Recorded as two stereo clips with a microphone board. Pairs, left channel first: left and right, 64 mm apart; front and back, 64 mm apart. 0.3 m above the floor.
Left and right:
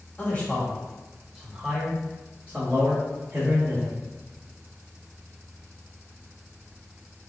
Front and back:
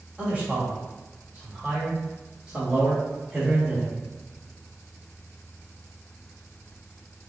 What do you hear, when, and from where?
0.2 s a man speaking: 125° left, 1.4 m; by 3.9 s 110° right, 1.9 m